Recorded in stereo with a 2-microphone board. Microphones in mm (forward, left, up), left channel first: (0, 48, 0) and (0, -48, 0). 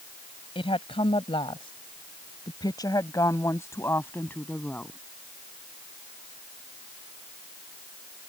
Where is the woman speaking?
70° left (ahead or behind); by 5.0 s 15° left (ahead or behind).